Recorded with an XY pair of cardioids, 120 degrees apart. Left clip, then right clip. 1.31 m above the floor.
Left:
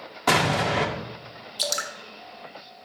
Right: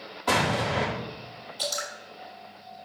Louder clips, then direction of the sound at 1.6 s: Left 3 dB; 55° left.